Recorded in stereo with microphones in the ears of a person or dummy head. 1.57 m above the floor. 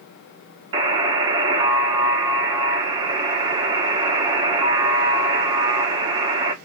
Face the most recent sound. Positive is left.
turn(degrees=-25)  # may be behind; listen again after turning